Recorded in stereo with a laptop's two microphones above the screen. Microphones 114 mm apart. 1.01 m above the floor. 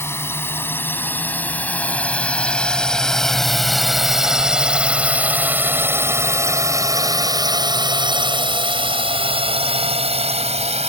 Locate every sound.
0.0 s a drone: 20° left (ahead or behind); by 10.9 s 65° right (ahead or behind)